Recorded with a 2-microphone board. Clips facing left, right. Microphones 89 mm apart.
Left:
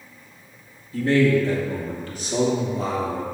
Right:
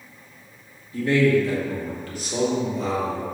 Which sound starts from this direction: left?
A man speaking, at 0.9 s.